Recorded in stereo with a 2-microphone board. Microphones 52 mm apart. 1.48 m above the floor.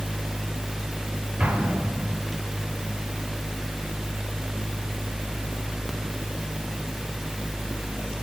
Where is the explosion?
20° right (ahead or behind), 6 m.